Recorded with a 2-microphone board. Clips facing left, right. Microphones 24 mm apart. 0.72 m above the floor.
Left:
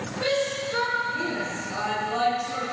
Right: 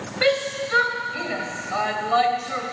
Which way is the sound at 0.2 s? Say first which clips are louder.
Right 4 dB; 80° right.